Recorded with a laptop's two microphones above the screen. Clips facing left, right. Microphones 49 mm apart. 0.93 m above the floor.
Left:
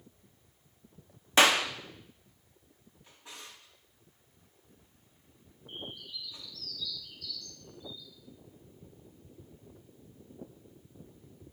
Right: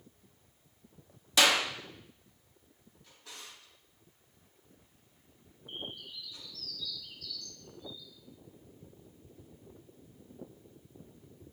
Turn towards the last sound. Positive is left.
turn(degrees=-50)  # may be behind; listen again after turning